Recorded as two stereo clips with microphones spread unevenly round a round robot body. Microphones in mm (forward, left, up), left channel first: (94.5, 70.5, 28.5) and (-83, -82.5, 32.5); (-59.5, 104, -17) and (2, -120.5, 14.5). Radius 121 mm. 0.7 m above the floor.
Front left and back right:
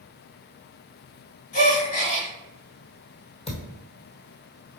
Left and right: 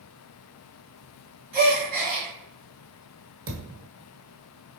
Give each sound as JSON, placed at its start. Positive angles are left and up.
{"t": 1.5, "sound": "a gasp", "azimuth_deg": -20, "distance_m": 1.9}
{"t": 3.5, "sound": "a thud", "azimuth_deg": -25, "distance_m": 1.6}